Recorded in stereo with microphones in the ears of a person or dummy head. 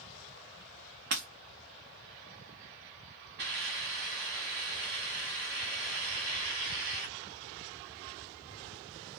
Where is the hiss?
55° right (ahead or behind), 1.4 m.